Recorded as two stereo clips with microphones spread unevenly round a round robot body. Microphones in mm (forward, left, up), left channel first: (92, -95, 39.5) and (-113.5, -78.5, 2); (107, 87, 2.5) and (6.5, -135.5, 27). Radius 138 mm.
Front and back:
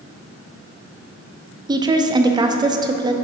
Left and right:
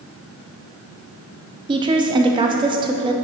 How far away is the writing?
No writing in this recording.